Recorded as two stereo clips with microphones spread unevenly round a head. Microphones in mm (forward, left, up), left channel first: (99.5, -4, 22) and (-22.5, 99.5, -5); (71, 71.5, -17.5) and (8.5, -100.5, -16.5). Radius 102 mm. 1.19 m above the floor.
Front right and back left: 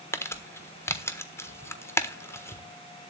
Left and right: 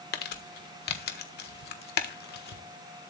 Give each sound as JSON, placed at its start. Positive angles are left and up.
{"t": 0.1, "sound": "crumpling", "azimuth_deg": 40, "distance_m": 1.4}